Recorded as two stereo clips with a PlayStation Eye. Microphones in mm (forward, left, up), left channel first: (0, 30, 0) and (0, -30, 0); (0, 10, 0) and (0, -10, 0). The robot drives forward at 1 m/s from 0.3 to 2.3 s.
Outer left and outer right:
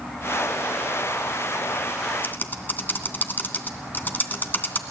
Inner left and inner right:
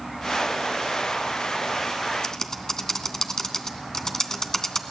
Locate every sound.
2.2 s typing on a keyboard: 35° left (ahead or behind), 2 m